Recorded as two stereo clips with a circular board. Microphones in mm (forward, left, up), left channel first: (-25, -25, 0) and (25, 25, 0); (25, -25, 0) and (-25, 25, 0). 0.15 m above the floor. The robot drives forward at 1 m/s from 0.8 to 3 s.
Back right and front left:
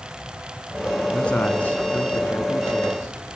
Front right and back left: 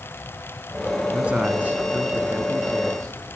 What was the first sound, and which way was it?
A man speaking, straight behind.